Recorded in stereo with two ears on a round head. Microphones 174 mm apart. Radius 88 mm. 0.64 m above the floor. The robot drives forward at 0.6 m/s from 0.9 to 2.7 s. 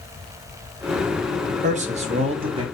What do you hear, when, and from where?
1.6 s a man speaking: 40° right (ahead or behind), 0.7 m; by 2.6 s 30° right (ahead or behind), 1.0 m